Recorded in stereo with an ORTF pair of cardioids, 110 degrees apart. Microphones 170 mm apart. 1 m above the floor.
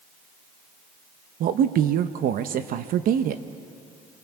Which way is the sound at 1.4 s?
60° right.